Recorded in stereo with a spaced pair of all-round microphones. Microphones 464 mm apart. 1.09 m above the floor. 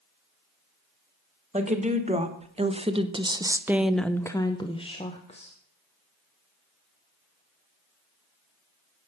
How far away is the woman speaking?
About 1.6 m.